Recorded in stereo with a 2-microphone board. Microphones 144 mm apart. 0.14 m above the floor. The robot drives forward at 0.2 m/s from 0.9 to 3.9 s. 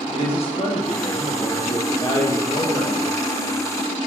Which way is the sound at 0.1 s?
40° left (ahead or behind).